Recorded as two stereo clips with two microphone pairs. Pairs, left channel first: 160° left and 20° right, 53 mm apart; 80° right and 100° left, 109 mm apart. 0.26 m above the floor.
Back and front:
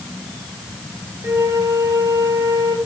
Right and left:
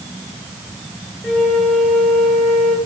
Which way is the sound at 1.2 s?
5° left.